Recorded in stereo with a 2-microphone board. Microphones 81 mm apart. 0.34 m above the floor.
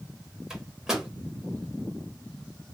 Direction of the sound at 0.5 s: 5° right (ahead or behind).